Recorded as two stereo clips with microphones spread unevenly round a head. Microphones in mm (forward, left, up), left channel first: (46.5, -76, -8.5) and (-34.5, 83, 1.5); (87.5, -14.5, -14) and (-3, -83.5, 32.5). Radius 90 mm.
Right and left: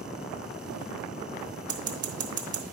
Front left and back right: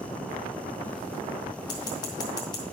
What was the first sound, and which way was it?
Scissors, 110° left.